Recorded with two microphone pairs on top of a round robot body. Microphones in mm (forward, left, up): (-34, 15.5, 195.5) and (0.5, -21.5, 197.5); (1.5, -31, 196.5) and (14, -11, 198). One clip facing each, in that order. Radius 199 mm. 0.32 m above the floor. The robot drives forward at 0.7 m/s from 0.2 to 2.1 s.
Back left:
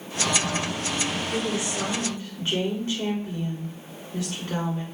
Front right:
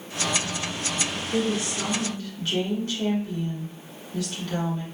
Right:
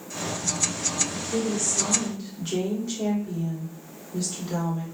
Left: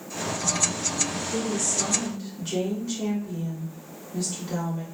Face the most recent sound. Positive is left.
turn(degrees=180)